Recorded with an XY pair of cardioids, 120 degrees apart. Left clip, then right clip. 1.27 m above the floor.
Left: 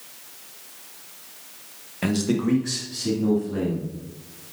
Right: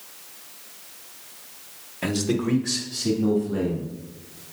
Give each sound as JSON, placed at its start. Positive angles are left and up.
{"t": 2.0, "sound": "a man speaking", "azimuth_deg": 15, "distance_m": 1.0}